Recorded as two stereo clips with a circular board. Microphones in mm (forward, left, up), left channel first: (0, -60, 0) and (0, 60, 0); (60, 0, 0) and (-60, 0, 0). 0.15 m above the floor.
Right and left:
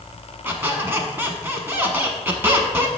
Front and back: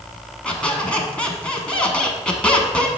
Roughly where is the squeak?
Ahead left.